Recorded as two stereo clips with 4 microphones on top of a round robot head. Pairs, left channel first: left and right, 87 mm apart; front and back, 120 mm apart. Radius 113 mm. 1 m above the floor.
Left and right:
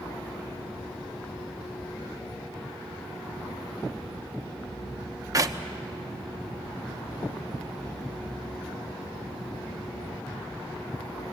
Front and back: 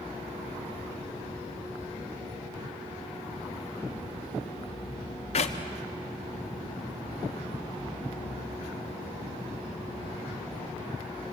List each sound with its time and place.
5.3 s a clap: 40° right, 1.2 m